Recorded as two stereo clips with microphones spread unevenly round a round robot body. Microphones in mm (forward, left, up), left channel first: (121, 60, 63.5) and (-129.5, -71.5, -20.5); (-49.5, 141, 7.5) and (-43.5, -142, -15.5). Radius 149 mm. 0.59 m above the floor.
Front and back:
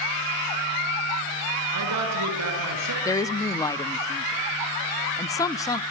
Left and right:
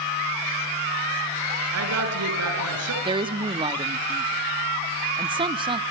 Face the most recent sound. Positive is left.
turn(degrees=-75)